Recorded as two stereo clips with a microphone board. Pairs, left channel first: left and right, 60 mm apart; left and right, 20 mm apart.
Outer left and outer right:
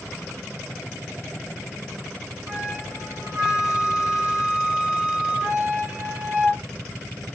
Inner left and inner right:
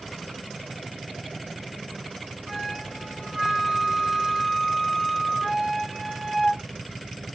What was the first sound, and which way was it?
A flute, 25° right (ahead or behind).